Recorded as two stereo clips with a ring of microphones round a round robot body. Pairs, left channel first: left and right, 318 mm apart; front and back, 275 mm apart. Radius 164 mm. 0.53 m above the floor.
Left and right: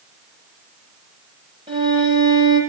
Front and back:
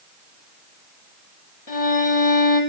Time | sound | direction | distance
1.7 | a violin | 15° right | 8.5 m